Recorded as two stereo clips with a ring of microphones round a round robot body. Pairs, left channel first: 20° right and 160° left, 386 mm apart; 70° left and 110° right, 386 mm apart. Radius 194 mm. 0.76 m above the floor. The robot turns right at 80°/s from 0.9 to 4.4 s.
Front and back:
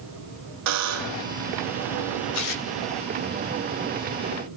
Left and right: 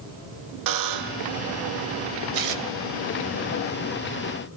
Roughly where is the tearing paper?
Right.